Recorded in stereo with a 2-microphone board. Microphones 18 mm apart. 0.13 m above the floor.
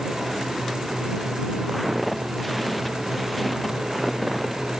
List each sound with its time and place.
1.7 s footsteps: 5° right (ahead or behind)